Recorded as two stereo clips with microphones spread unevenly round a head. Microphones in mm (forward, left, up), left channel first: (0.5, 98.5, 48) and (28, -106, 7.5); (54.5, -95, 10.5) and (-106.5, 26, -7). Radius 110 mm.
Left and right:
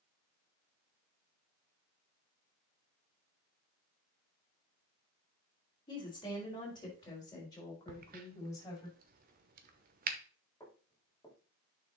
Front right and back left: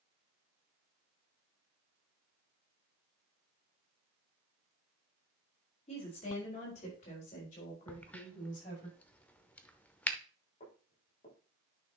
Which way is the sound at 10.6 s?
20° left.